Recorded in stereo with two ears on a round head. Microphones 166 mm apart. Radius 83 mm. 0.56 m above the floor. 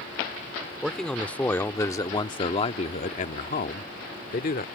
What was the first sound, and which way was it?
A man speaking, centre (ahead or behind).